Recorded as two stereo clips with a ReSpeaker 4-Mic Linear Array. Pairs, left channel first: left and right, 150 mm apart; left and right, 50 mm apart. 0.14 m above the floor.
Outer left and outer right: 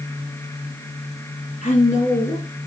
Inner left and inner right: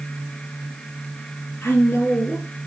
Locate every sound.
1.6 s a woman speaking: 50° left (ahead or behind), 3.5 m